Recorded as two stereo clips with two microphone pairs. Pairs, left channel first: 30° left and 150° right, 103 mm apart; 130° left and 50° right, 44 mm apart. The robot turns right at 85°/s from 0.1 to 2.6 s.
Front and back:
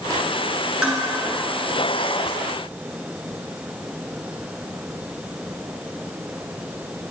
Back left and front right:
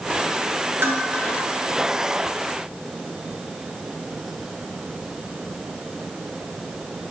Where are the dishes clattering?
70° right, 2 m; by 1.0 s 55° right, 2 m.